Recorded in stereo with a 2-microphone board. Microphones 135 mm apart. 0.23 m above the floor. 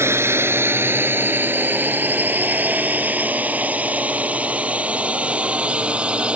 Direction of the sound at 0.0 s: 20° right (ahead or behind).